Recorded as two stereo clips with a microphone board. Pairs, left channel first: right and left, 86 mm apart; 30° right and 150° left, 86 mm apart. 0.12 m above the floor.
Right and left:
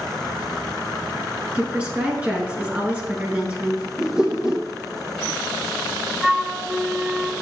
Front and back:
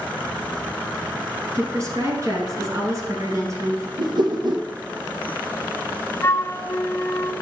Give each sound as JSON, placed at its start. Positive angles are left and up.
{"t": 1.6, "sound": "a woman speaking", "azimuth_deg": 155, "distance_m": 1.8}
{"t": 4.0, "sound": "a whoosh", "azimuth_deg": 170, "distance_m": 1.1}
{"t": 6.2, "sound": "a flute", "azimuth_deg": 10, "distance_m": 0.6}